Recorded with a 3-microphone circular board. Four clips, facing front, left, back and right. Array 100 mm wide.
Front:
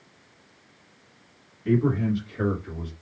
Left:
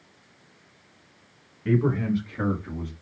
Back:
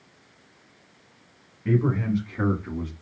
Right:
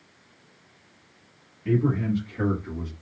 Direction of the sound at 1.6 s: 115° left.